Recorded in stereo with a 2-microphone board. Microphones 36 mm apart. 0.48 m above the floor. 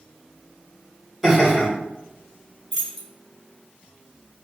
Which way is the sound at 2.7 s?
10° left (ahead or behind).